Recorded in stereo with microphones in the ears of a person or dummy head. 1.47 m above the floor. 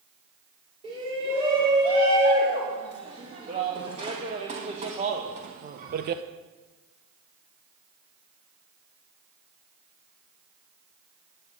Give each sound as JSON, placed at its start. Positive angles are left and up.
{"t": 0.8, "sound": "a shout", "side_deg": -25, "distance_m": 4.0}